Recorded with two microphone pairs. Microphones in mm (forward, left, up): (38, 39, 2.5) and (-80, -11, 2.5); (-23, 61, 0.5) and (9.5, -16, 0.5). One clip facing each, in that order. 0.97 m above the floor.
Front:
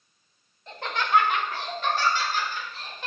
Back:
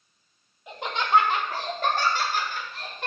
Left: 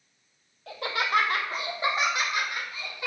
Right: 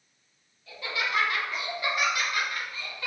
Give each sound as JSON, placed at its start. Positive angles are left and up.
{"t": 0.7, "sound": "laughter", "azimuth_deg": 125, "distance_m": 1.7}